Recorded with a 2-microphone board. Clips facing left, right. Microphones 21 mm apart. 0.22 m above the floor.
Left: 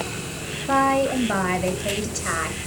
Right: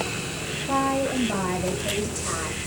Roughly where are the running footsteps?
I don't hear running footsteps.